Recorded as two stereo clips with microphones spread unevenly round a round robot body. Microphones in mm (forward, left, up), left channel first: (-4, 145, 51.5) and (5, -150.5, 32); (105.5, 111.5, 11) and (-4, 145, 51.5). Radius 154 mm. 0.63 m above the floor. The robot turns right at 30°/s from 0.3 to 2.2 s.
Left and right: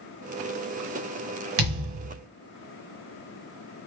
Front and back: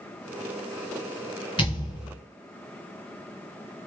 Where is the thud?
95° right, 1.3 m; by 2.2 s 75° right, 1.3 m.